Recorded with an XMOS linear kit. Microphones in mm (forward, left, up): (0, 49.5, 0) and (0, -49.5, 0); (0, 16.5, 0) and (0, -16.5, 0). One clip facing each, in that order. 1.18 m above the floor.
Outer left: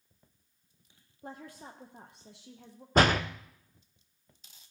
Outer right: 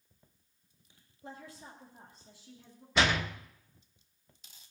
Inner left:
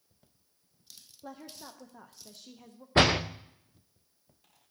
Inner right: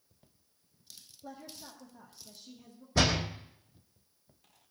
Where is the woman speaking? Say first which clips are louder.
Outer left 3 dB, inner left 2 dB; 45° left (ahead or behind), 0.9 m; by 2.9 s 70° left (ahead or behind), 1.1 m.